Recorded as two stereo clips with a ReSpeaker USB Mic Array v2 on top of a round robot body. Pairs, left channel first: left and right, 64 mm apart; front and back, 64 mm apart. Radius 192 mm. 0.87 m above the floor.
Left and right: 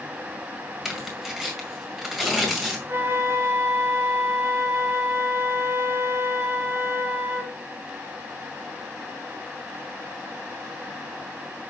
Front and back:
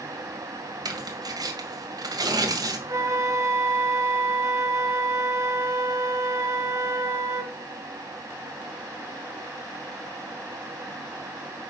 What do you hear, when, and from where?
0.8 s tearing paper: 175° right, 1.8 m
2.9 s a flute: 140° right, 2.5 m